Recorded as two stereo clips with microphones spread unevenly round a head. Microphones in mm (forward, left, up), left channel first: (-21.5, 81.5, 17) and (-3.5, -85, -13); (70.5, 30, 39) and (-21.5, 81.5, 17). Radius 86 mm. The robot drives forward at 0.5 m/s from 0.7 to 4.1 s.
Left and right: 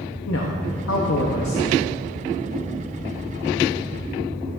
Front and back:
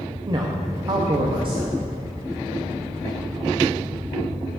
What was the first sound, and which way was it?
A man speaking, 105° left.